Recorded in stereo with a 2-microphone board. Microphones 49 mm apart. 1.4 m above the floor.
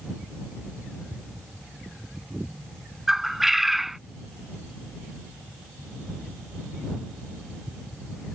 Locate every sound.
3.1 s a bird: 5° right (ahead or behind)